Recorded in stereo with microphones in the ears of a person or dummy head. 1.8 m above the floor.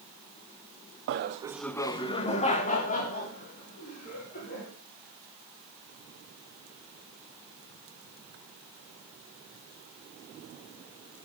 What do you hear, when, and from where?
1.1 s laughter: 55° right (ahead or behind), 0.8 m; by 4.7 s 45° left (ahead or behind), 5 m